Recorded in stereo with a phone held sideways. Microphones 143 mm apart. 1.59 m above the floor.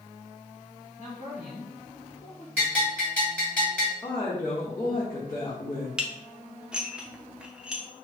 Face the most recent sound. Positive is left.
turn(degrees=-5)  # may be behind; listen again after turning